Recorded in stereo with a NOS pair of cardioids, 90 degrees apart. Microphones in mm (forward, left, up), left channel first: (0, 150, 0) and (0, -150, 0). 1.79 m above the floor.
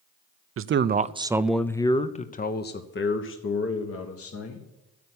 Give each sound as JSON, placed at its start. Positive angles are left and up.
{"t": 0.6, "sound": "a man speaking", "azimuth_deg": -45, "distance_m": 0.6}